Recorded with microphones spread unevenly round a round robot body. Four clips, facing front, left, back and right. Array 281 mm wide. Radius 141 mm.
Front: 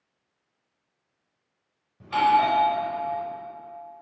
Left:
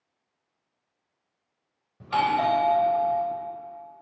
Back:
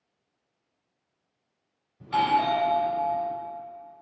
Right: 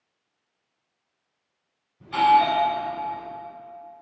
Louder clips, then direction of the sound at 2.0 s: Right 5 dB, front 3 dB; 65° left.